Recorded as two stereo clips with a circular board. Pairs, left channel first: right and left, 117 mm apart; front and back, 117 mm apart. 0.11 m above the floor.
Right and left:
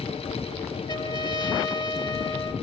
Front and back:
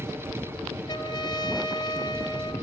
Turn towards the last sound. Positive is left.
turn(degrees=-40)